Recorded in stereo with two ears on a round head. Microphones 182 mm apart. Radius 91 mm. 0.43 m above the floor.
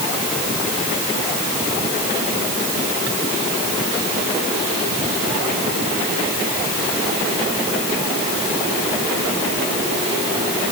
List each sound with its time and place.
Only background noise.